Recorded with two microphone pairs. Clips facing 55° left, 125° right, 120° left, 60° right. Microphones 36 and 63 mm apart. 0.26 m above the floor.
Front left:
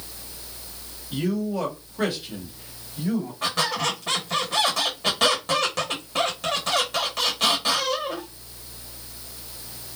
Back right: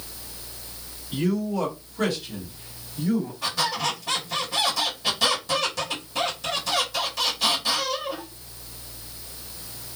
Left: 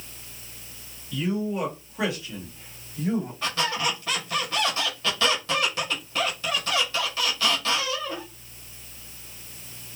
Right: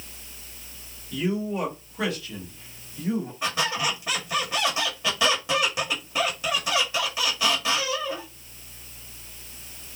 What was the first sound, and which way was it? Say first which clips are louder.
A man speaking: back right 1 dB, even; 5° right.